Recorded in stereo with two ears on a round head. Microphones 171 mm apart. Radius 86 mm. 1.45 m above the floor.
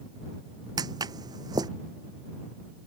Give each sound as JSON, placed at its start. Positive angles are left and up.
{"t": 0.8, "sound": "footsteps", "side_deg": -20}